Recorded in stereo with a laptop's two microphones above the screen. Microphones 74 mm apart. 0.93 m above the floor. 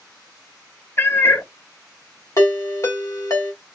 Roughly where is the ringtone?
Left.